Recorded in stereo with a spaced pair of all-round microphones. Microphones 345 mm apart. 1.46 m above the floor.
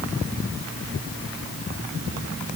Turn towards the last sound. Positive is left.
No sound to turn to.